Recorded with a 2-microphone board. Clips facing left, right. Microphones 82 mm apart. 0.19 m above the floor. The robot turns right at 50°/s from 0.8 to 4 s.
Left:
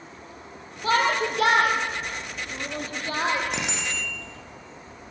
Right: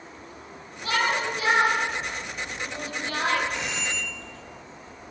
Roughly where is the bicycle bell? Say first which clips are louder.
Left 1 dB; left.